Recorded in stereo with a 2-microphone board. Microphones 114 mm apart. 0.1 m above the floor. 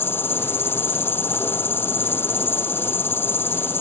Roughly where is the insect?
Centre.